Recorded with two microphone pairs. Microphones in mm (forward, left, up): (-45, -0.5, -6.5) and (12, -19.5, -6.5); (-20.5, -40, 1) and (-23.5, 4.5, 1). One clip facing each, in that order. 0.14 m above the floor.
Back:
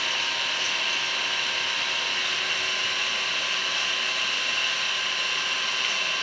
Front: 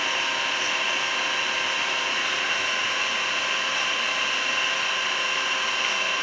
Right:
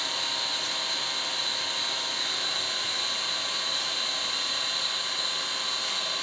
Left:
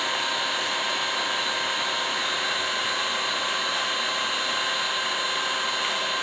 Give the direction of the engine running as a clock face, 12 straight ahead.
10 o'clock.